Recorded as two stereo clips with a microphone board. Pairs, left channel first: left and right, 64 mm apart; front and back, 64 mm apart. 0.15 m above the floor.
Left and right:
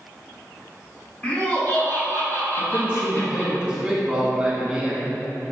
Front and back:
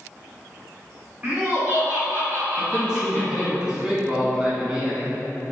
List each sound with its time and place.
1.2 s laughter: 140° left, 2.0 m; by 3.6 s 115° left, 4.5 m
2.6 s a man speaking: 130° right, 1.0 m